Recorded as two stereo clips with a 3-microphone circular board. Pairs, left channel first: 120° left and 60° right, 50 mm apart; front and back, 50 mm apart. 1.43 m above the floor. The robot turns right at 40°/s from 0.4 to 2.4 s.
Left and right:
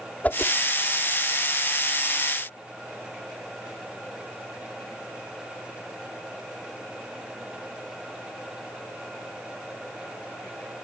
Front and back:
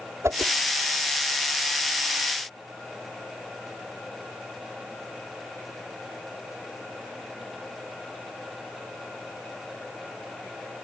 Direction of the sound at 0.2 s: 175° left.